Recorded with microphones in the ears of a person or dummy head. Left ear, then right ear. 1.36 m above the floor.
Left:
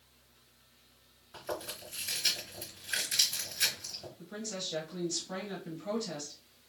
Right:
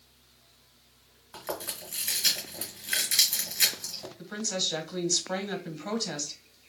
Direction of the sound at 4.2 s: 50° right (ahead or behind).